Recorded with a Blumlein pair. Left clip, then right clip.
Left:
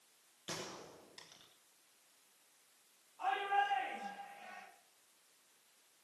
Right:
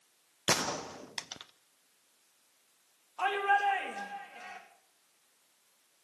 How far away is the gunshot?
About 0.8 m.